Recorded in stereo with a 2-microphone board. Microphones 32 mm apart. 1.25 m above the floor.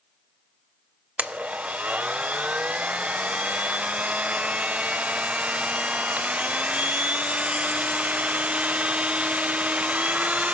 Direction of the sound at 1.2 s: 40° right (ahead or behind).